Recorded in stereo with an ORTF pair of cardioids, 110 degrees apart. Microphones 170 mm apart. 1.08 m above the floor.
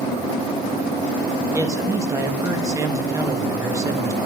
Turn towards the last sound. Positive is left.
turn(degrees=-20)